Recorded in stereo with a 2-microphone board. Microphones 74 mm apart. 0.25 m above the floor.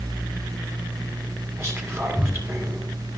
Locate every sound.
1.6 s whispering: 35° right (ahead or behind), 2 m